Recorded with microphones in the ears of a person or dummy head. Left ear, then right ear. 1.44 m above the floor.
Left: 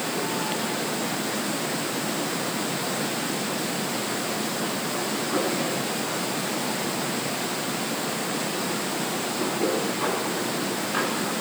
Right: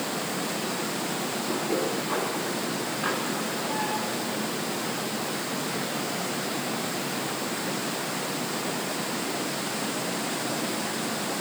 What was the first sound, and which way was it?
Only background noise.